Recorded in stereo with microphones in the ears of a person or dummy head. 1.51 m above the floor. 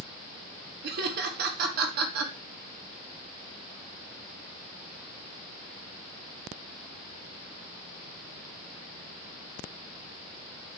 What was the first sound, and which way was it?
Laughter, 55° right (ahead or behind).